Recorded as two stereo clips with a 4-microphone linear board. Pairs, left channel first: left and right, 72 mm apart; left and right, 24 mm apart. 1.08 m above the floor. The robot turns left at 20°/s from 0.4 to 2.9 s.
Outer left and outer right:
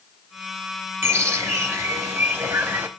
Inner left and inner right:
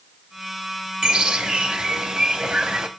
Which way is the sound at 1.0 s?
90° right.